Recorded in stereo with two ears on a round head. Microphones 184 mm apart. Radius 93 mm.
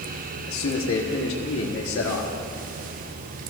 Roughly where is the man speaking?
Left.